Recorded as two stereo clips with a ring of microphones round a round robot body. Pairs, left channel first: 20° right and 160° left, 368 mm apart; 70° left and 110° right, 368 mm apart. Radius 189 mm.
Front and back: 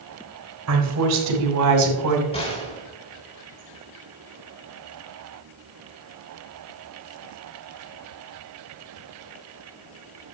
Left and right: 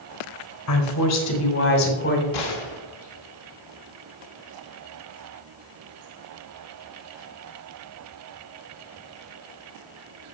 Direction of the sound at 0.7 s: 110° left.